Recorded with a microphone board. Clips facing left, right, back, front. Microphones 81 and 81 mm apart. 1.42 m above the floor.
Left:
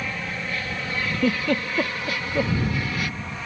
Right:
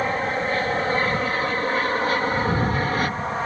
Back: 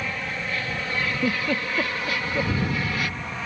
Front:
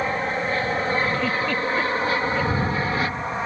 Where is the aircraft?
50° right; by 3.5 s 55° right.